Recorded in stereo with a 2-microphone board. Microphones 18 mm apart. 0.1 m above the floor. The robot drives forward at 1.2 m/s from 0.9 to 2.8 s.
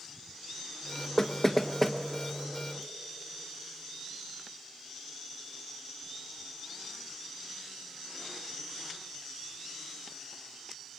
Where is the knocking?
20° left (ahead or behind), 0.8 m; by 2.0 s 10° left (ahead or behind), 1.3 m.